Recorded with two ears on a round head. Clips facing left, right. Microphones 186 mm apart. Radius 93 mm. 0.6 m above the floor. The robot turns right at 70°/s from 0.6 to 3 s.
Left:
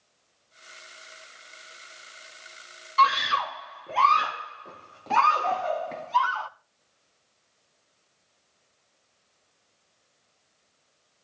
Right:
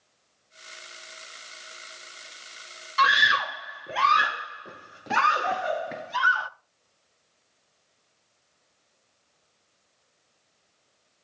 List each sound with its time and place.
3.0 s a scream: 15° right (ahead or behind), 0.6 m